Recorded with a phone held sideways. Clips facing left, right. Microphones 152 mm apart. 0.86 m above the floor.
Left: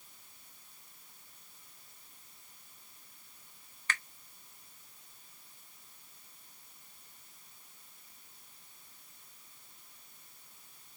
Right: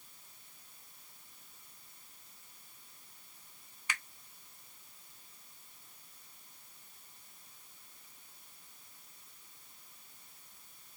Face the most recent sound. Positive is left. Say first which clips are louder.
# left 3 dB
turn(degrees=-10)  # may be behind; listen again after turning